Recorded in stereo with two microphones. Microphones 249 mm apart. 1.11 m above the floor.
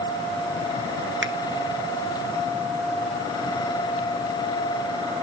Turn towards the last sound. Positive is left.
turn(degrees=-50)  # may be behind; listen again after turning